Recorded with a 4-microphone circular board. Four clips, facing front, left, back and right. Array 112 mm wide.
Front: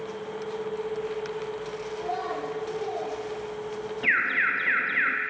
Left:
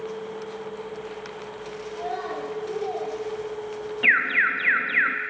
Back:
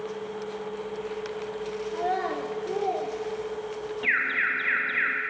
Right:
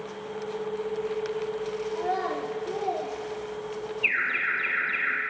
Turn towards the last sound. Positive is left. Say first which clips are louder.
# left 8 dB, front 2 dB
turn(degrees=75)